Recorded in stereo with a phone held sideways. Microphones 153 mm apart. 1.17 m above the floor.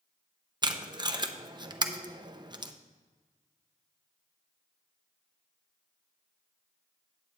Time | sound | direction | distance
0.6 | tape being pulled | 30° right (ahead or behind) | 0.6 m